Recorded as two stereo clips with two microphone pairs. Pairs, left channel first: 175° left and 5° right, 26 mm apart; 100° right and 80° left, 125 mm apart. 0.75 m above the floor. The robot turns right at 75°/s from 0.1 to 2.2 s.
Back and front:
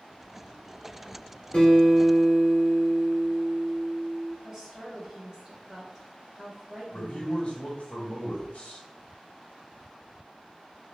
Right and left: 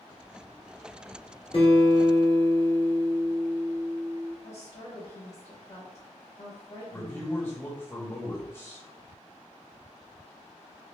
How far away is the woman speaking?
About 1.3 m.